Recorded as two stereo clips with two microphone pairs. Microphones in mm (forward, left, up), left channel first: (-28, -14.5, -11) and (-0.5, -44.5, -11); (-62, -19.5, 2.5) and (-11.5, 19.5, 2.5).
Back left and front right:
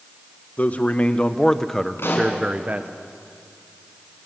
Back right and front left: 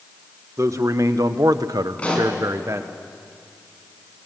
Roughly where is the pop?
Behind left.